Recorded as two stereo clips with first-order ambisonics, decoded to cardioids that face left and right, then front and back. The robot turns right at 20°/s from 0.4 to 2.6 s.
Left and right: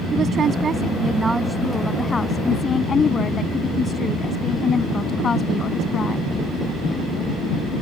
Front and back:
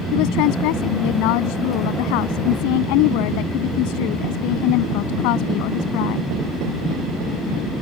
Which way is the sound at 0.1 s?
25° right.